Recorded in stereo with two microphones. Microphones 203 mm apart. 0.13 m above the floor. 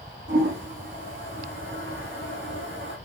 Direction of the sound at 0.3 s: 70° right (ahead or behind).